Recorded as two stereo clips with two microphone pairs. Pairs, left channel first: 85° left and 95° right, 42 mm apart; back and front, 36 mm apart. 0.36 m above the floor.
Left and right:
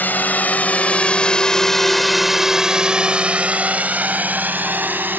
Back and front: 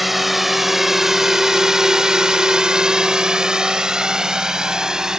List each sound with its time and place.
0.0 s a drone: 85° left; by 5.2 s 65° right